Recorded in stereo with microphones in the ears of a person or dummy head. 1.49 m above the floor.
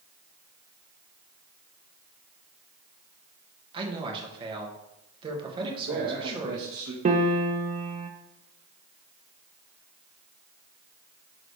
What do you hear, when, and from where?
3.7 s a man speaking: 30° right (ahead or behind), 1.7 m
5.6 s a man speaking: 60° right (ahead or behind), 1.3 m
7.0 s a piano: 35° right (ahead or behind), 0.7 m